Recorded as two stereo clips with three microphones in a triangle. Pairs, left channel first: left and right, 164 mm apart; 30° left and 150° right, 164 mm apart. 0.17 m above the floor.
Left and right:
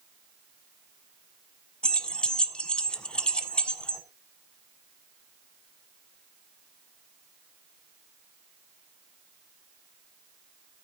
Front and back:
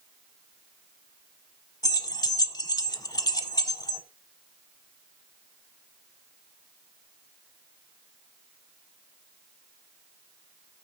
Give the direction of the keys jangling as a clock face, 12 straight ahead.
12 o'clock.